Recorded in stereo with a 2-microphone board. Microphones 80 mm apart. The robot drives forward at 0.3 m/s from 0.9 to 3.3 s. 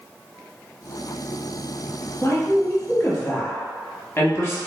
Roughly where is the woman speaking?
Left.